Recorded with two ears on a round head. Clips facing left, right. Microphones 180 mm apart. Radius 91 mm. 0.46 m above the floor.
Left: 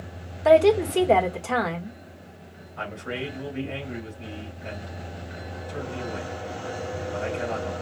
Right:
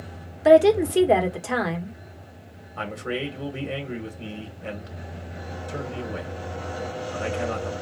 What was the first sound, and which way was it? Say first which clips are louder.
A woman speaking: right 2 dB; 10° right (ahead or behind).